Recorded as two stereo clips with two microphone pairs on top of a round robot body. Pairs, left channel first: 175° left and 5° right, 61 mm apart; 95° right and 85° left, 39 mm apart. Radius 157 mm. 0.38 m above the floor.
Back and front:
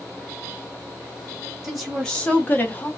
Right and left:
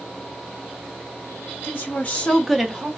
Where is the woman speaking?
85° right, 1.3 m; by 2.9 s 130° left, 1.1 m.